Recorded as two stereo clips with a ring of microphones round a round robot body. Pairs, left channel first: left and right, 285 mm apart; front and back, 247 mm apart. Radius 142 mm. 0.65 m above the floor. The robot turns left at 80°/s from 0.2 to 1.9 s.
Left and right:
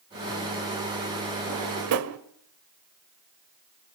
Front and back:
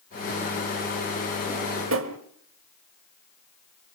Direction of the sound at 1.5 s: 95° right.